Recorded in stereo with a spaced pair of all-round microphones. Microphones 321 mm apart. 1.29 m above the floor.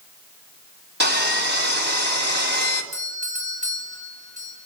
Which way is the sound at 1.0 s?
35° right (ahead or behind).